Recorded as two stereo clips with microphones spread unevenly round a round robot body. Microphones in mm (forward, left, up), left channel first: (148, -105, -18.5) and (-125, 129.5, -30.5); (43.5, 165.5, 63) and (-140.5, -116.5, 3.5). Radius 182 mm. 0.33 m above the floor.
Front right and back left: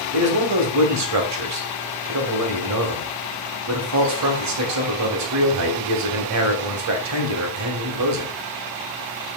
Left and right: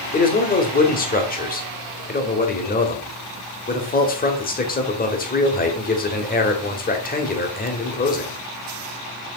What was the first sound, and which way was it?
A man speaking, 125° left.